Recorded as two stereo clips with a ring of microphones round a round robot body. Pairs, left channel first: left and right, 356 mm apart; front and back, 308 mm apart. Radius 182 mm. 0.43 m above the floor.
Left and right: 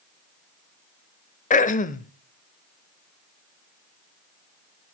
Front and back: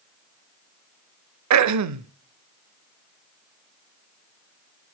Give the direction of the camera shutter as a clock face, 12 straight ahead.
No camera shutter in this recording.